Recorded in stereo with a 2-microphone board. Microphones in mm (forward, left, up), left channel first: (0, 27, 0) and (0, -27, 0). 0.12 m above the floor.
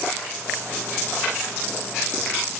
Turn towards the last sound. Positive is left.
No sound to turn to.